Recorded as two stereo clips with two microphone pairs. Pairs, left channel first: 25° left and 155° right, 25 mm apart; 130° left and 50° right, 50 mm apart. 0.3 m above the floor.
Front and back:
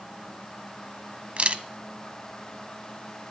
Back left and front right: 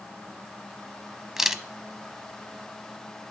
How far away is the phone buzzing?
I don't hear a phone buzzing.